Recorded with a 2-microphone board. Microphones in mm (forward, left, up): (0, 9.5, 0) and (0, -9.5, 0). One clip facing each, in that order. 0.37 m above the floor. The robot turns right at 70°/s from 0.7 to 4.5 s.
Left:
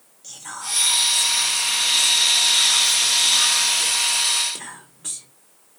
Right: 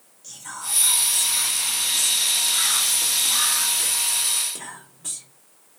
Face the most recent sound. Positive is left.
turn(degrees=20)  # may be behind; listen again after turning